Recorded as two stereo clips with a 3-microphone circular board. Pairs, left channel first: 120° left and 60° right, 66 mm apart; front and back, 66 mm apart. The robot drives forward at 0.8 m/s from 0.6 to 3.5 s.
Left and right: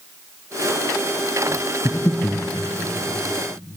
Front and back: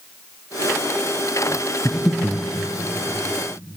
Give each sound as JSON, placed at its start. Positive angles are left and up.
{"t": 1.9, "sound": "breathing", "azimuth_deg": 90, "distance_m": 2.0}